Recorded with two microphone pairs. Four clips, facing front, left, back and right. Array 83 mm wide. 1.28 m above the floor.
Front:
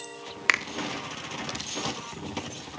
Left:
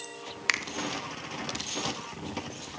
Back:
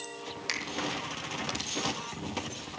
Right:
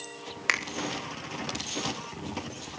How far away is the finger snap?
About 1.0 m.